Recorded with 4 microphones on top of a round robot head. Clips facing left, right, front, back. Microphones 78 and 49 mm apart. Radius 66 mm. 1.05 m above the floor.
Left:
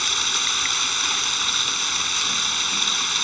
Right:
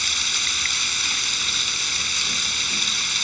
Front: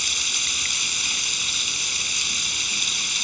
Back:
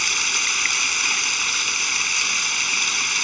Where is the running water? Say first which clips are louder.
Left 3 dB, back 5 dB; 135° left.